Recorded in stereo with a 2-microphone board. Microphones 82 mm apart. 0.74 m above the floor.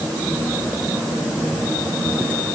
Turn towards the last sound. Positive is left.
No sound to turn to.